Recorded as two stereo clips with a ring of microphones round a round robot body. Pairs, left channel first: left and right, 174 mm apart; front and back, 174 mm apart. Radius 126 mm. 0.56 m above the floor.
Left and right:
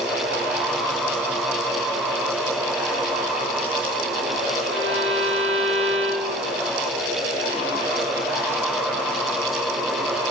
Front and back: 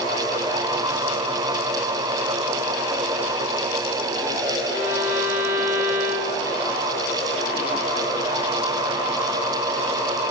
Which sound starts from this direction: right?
A violin, at 4.7 s.